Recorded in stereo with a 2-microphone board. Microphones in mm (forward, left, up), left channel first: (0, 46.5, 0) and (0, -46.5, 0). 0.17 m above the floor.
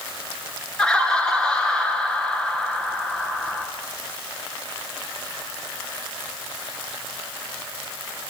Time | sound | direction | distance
0.8 | laughter | 10° left (ahead or behind) | 2.0 m